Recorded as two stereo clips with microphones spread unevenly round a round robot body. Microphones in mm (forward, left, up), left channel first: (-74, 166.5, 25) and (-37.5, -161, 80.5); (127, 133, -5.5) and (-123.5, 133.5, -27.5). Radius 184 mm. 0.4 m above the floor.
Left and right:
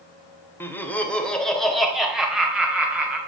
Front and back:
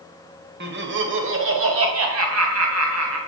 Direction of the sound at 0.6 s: 170° left.